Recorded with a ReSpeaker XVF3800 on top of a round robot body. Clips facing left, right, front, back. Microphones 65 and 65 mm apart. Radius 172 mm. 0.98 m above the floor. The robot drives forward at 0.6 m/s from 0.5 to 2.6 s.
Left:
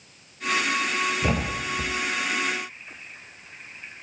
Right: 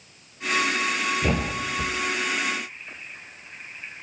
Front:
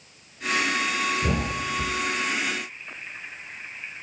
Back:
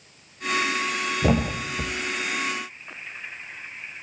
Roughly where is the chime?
I don't hear a chime.